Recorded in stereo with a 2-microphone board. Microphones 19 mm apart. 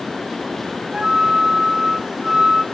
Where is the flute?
45° right (ahead or behind), 0.9 m.